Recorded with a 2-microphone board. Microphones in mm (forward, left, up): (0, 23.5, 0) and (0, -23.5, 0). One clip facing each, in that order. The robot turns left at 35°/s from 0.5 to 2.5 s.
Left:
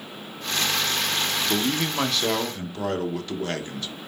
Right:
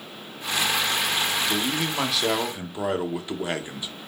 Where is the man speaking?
20° left, 0.8 m; by 3.9 s 15° right, 0.8 m.